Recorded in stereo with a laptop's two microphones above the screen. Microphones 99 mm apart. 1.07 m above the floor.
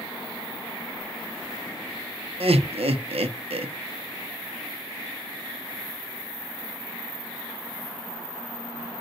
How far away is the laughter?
About 0.7 m.